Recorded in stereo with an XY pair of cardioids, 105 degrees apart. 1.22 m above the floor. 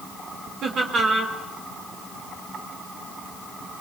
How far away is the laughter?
About 3.5 m.